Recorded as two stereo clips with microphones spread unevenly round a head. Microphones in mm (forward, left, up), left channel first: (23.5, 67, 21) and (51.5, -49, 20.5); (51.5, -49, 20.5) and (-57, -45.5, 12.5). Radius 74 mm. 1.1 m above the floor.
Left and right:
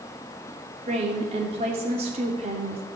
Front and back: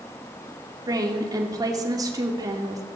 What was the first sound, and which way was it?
A woman speaking, 125° right.